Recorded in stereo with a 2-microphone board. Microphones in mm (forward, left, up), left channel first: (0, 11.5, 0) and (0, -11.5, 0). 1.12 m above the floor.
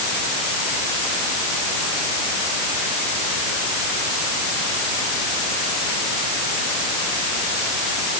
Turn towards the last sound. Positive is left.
No sound to turn to.